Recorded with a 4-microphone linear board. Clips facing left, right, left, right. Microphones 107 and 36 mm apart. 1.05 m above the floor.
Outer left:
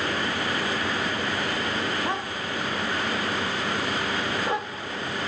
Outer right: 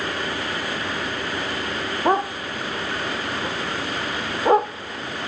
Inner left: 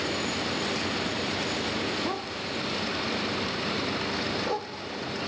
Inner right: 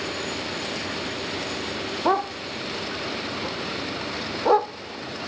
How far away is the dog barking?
About 0.5 m.